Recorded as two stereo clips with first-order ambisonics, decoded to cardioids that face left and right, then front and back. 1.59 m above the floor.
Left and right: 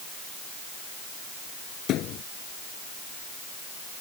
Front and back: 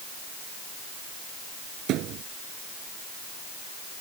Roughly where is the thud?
Behind left.